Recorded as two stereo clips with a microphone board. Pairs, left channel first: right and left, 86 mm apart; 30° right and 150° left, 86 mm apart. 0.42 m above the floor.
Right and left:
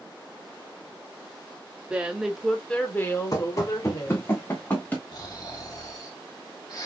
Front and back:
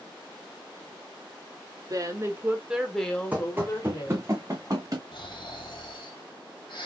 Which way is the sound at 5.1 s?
50° right.